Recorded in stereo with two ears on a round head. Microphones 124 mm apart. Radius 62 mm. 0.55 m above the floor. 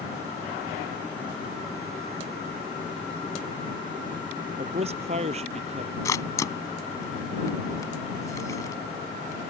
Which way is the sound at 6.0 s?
25° left (ahead or behind).